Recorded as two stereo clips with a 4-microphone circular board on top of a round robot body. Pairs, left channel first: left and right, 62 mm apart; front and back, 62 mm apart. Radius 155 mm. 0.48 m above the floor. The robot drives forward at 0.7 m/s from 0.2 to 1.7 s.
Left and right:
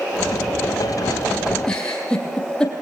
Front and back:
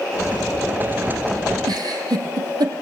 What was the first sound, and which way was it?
A giggle, 170° left.